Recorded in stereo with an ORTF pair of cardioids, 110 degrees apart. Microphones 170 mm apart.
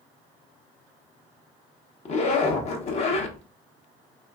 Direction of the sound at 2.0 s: 40° left.